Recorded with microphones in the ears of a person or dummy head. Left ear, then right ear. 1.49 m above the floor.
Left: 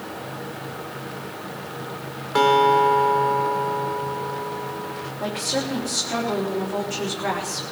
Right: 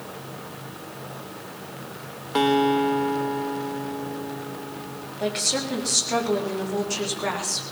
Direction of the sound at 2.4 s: 20° right (ahead or behind).